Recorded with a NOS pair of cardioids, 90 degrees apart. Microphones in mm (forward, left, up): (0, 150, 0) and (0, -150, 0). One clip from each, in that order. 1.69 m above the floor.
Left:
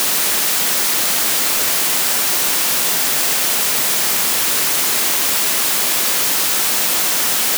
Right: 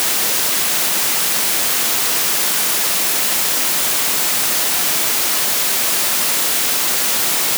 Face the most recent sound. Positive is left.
No sound to turn to.